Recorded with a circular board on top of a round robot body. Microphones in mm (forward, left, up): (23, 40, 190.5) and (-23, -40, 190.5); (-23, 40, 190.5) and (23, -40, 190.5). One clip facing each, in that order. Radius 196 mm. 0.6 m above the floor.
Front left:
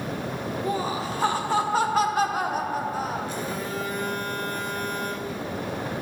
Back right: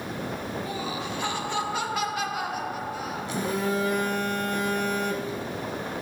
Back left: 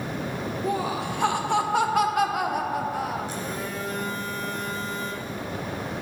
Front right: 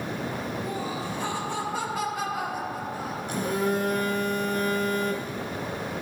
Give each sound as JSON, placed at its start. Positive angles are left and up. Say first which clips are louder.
{"t": 0.6, "sound": "laughter", "louder": "front left 5 dB, back left 4 dB", "azimuth_deg": 110, "distance_m": 1.5}
{"t": 3.3, "sound": "a phone buzzing", "louder": "back right 3 dB, front right 6 dB", "azimuth_deg": -95, "distance_m": 1.3}